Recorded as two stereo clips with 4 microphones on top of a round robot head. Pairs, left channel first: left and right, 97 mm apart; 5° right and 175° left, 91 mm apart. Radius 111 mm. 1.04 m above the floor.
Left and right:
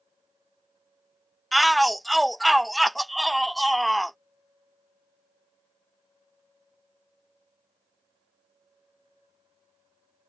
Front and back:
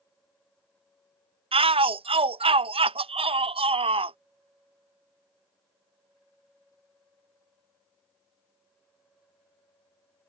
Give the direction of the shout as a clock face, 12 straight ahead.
6 o'clock.